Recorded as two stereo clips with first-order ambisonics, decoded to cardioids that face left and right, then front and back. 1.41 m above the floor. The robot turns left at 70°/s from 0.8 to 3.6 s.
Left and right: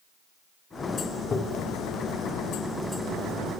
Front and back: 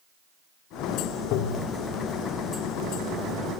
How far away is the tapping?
About 3 m.